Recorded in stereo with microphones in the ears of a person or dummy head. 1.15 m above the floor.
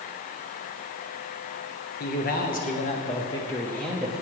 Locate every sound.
2.0 s a man speaking: 50° left (ahead or behind), 1.4 m; by 4.2 s 5° right (ahead or behind), 1.0 m